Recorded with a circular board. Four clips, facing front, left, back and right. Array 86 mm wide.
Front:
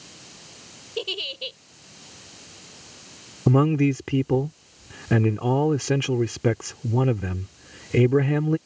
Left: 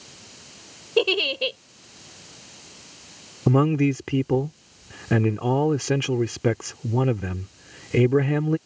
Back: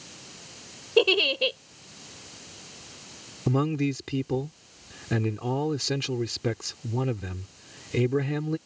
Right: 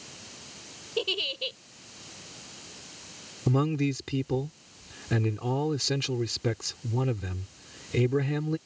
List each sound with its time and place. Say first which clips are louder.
1.0 s a giggle: left 10 dB, back 11 dB; 135° left
3.5 s a man speaking: left 7 dB, front 6 dB; 50° left